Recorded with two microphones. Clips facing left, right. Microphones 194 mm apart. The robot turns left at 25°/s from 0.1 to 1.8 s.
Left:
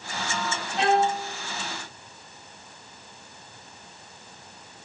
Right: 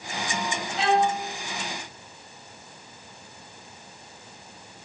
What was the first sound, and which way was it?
A violin, 65° left (ahead or behind).